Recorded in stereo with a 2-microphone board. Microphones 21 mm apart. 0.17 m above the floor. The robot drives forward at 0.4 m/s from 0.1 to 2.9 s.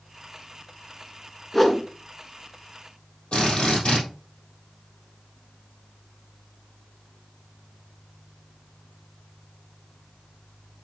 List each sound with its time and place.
1.5 s a whoosh: 10° left (ahead or behind), 0.9 m
3.3 s a drill: 70° left (ahead or behind), 4 m